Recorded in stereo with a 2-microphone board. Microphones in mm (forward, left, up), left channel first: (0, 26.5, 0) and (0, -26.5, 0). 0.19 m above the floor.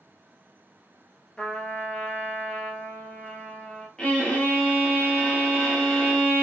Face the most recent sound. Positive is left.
turn(degrees=15)  # may be behind; listen again after turning